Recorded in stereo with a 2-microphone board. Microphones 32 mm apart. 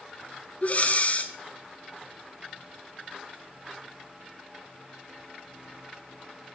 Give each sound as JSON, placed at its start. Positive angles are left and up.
{"t": 0.6, "sound": "breathing", "side_deg": 40, "distance_m": 1.1}